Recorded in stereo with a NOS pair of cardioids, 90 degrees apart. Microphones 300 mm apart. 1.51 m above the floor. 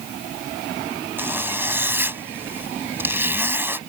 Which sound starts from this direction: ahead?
A zipper, at 1.2 s.